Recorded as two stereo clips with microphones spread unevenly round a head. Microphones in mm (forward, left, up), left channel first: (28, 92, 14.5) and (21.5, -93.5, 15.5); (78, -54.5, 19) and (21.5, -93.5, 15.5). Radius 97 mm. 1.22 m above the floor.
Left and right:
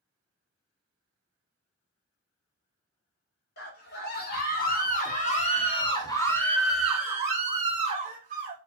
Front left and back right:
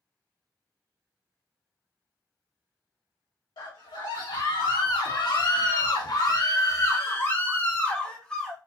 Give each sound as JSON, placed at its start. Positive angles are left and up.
{"t": 3.6, "sound": "a scream", "azimuth_deg": 60, "distance_m": 1.9}